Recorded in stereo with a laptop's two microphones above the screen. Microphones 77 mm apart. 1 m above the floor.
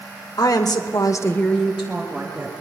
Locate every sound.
0.4 s a woman speaking: 55° left (ahead or behind), 1.6 m; by 2.5 s 25° right (ahead or behind), 1.9 m